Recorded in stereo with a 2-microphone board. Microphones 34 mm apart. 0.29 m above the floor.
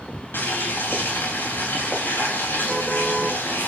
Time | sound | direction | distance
0.3 | boiling | 90° left | 8.5 m